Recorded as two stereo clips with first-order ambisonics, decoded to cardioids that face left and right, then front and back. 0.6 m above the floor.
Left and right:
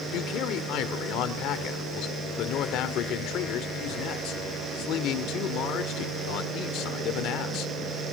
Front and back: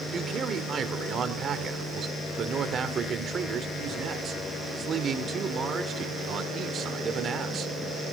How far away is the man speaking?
About 1.7 m.